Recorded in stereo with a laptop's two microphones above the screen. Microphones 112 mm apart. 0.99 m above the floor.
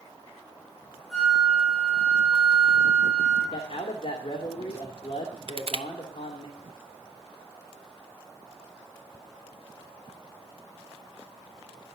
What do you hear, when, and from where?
1.1 s a flute: 5° left (ahead or behind), 3.5 m
3.5 s a man speaking: 70° left (ahead or behind), 2.5 m
5.5 s crushing: 60° right (ahead or behind), 0.8 m